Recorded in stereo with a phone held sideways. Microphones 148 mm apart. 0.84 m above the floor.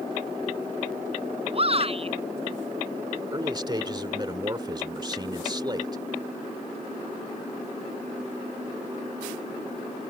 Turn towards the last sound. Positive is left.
turn(degrees=-30)  # may be behind; listen again after turning